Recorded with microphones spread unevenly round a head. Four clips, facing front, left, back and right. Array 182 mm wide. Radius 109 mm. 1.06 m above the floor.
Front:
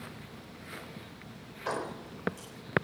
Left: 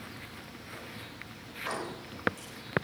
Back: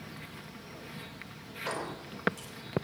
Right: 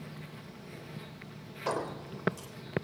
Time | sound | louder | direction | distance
1.7 | keys jangling | right 3 dB, front 2 dB | 70° right | 3.5 m